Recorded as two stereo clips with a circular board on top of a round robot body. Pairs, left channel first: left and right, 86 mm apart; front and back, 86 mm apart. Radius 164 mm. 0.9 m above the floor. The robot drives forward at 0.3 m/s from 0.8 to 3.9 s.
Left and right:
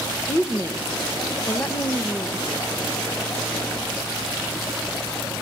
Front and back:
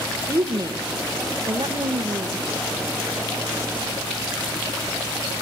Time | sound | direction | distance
0.3 | a woman speaking | 145° left | 1.3 m